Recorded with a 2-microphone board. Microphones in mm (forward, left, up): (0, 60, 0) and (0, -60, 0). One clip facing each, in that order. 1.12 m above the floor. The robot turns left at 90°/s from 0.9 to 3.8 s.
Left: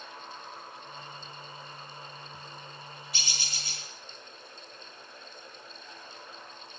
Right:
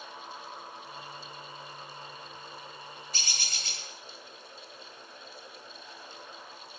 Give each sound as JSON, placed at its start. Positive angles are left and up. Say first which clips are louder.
{"t": 3.1, "sound": "a bird", "louder": "even", "azimuth_deg": -40, "distance_m": 4.0}